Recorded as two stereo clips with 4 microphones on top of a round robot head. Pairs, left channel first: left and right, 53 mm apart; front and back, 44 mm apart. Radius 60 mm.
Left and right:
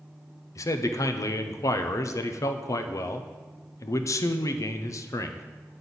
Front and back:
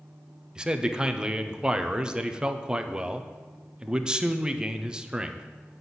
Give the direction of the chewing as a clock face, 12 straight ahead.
No chewing in this recording.